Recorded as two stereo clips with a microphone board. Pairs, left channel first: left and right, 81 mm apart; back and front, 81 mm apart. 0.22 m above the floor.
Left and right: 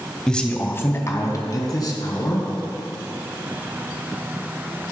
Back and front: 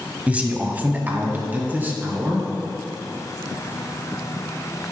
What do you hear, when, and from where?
0.3 s a man speaking: 25° left, 0.9 m; by 2.5 s 65° left, 2.5 m